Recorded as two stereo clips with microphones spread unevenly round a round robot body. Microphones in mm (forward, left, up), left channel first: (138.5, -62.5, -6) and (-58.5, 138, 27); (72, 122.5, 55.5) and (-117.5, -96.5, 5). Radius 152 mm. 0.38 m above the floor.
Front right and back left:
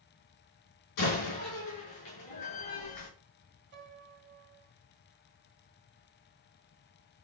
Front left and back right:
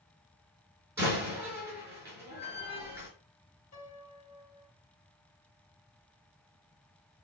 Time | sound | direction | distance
1.0 | a door slam | 50° right | 4 m
3.7 | a piano | 85° left | 2.0 m